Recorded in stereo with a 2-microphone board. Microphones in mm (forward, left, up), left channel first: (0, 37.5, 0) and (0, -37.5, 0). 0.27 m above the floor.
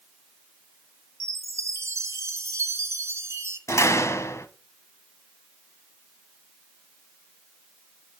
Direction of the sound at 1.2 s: 40° right (ahead or behind).